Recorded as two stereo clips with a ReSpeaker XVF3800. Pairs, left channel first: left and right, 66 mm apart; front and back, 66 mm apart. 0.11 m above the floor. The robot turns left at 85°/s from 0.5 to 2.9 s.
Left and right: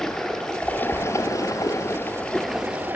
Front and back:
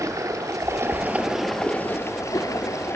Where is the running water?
170° left, 1.2 m; by 3.0 s 35° right, 1.2 m.